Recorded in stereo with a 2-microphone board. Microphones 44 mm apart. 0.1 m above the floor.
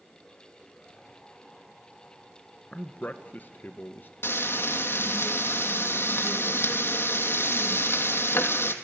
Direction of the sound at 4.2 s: 65° left (ahead or behind).